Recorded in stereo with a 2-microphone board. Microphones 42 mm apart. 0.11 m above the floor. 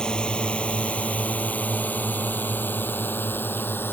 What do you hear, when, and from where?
0.0 s a drone: 20° left (ahead or behind); by 3.9 s 65° left (ahead or behind)